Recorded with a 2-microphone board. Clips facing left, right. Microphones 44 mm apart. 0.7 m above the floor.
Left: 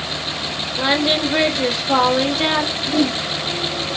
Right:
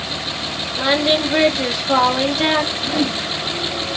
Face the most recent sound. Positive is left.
turn(degrees=-20)  # may be behind; listen again after turning